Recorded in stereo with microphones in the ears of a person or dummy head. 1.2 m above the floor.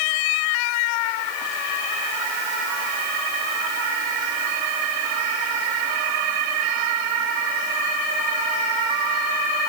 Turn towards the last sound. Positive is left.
No sound to turn to.